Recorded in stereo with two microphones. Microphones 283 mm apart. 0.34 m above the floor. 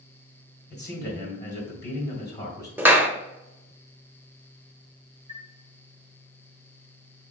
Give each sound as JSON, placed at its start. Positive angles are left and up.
{"t": 0.7, "sound": "a man speaking", "side_deg": 35, "distance_m": 2.0}
{"t": 2.8, "sound": "a clap", "side_deg": -5, "distance_m": 0.6}
{"t": 5.3, "sound": "a chime", "side_deg": 25, "distance_m": 0.7}